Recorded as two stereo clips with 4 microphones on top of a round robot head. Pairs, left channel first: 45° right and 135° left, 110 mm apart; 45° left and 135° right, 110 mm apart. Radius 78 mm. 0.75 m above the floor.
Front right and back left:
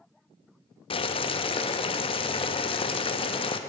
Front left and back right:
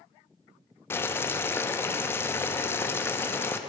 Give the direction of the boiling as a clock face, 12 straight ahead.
1 o'clock.